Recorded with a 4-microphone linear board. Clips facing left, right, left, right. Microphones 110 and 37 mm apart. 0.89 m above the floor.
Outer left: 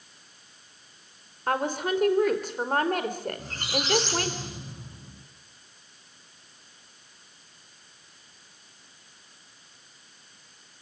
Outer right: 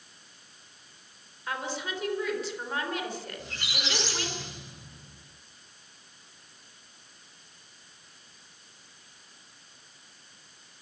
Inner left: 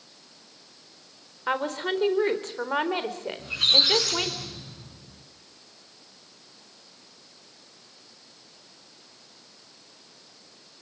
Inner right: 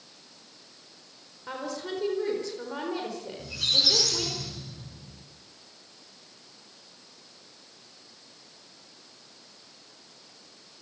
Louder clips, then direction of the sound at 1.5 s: Outer left 8 dB, inner left 7 dB; 50° left (ahead or behind).